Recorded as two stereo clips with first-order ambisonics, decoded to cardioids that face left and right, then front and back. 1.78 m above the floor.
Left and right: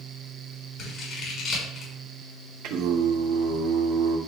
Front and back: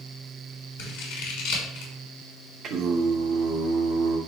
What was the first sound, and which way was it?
Scissors, 25° left.